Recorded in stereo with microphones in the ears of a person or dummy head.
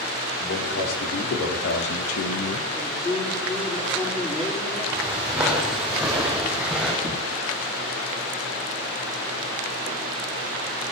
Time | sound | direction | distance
0.4 | a man speaking | 65° left (ahead or behind) | 3 m
2.8 | a man speaking | 20° left (ahead or behind) | 9 m
4.9 | footsteps | 5° right (ahead or behind) | 3.5 m
7.0 | a thud | 15° left (ahead or behind) | 6 m